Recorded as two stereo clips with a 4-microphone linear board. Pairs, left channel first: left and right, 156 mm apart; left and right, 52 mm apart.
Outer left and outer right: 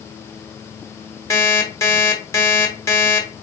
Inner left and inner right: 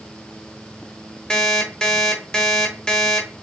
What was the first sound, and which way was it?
An alarm clock, 20° left (ahead or behind).